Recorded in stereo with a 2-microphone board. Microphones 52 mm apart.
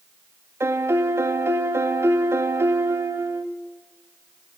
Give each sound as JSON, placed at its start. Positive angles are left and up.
{"t": 0.6, "sound": "a piano", "side_deg": -65, "distance_m": 0.6}